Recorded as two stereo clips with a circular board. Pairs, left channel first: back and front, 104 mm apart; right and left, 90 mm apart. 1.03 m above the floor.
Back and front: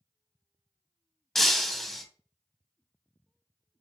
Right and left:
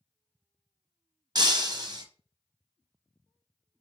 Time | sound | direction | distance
1.4 | breaking glass | 95° left | 0.9 m